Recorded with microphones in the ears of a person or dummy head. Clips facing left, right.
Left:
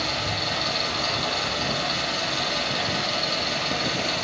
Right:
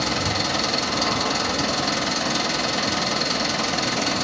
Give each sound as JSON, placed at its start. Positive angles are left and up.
{"t": 0.0, "sound": "an engine running", "side_deg": -75, "distance_m": 2.0}